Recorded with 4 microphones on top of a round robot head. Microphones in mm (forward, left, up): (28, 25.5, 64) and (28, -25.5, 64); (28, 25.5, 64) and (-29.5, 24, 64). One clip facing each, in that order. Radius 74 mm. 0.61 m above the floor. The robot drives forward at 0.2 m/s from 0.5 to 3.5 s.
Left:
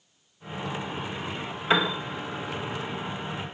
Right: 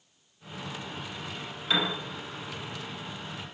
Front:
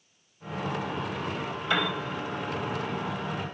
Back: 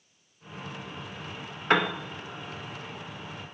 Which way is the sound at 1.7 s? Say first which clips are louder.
Left 5 dB, back 4 dB; 150° left.